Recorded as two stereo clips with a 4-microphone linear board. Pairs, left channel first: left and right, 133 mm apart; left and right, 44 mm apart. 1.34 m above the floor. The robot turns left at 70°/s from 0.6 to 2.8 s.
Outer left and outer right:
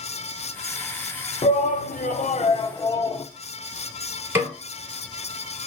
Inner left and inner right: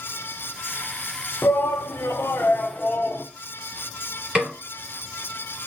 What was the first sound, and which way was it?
A shout, 125° left.